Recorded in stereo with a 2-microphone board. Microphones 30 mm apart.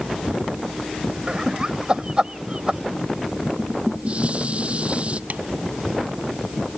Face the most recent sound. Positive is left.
turn(degrees=-60)  # may be behind; listen again after turning